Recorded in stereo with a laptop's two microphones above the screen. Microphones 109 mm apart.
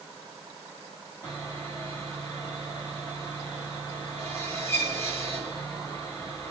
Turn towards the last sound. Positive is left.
turn(degrees=25)  # may be behind; listen again after turning